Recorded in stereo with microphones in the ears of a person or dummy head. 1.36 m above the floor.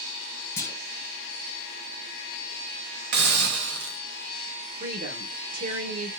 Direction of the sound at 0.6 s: 15° left (ahead or behind).